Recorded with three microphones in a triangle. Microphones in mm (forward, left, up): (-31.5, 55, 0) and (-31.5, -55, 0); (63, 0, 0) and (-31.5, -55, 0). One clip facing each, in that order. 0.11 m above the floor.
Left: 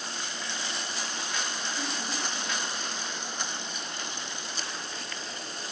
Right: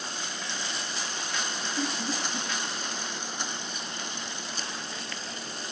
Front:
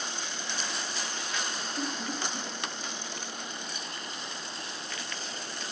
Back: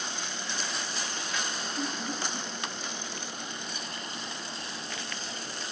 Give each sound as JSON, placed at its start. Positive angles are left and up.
{"t": 1.8, "sound": "laughter", "azimuth_deg": -40, "distance_m": 2.0}